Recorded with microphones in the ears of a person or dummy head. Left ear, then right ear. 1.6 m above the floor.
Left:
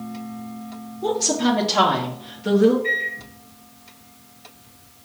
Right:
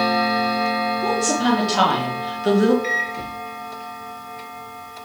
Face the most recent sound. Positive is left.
turn(degrees=-70)  # may be behind; listen again after turning